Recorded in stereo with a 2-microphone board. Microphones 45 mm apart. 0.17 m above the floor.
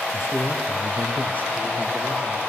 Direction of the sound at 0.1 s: 60° left (ahead or behind).